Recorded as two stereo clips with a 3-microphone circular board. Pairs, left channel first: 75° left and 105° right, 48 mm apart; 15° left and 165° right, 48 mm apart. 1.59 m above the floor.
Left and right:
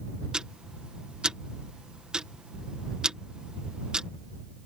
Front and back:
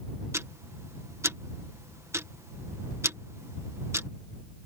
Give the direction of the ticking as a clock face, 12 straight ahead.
6 o'clock.